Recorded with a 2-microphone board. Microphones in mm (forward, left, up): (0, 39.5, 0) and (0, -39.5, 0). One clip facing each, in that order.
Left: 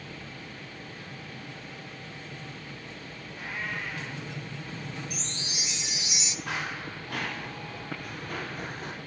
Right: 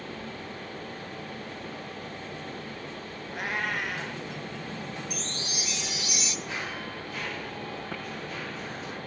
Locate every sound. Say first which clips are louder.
3.3 s a cat meowing: right 5 dB; 80° right, 3 m
5.1 s a chime: right 3 dB; 25° left (ahead or behind), 1.0 m
6.5 s running footsteps: left 1 dB; 75° left (ahead or behind), 8.5 m; by 8.9 s 50° left (ahead or behind), 7 m